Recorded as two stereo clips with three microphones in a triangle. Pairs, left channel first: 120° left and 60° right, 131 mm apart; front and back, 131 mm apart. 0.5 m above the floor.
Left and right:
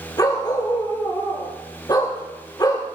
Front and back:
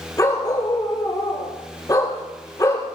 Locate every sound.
0.2 s a dog barking: 60° left, 5 m